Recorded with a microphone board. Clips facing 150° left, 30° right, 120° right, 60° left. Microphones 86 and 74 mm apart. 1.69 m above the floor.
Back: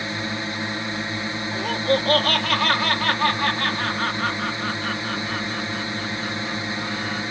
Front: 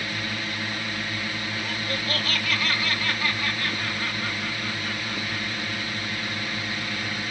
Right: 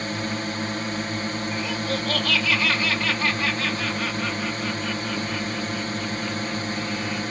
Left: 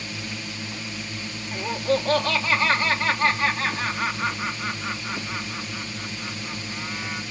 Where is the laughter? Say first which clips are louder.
Back 9 dB, left 8 dB; 115° left.